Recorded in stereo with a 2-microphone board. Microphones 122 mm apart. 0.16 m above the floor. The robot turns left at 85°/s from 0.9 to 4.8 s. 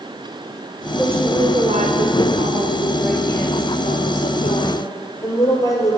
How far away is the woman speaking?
About 3.5 m.